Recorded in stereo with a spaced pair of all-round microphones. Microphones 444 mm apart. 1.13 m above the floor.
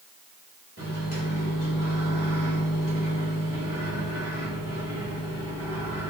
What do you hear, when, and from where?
0.8 s a microwave: 30° right (ahead or behind), 3.5 m